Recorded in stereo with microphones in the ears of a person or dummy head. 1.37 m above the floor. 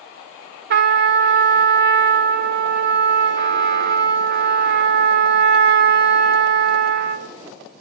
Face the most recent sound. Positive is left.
turn(degrees=-55)  # may be behind; listen again after turning